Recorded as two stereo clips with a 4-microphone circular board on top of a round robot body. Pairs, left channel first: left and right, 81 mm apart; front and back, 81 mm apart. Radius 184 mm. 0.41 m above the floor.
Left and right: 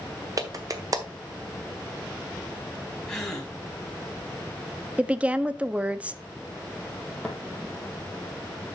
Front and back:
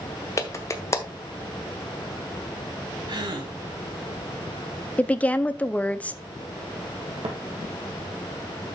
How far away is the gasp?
About 3 m.